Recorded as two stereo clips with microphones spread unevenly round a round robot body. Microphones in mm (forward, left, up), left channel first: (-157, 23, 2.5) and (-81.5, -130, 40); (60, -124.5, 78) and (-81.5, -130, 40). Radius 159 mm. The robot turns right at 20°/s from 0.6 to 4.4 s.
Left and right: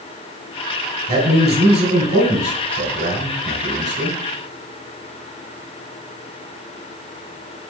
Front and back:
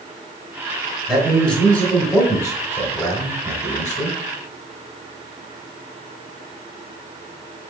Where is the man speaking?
100° right, 1.9 m; by 4.2 s 40° right, 1.9 m.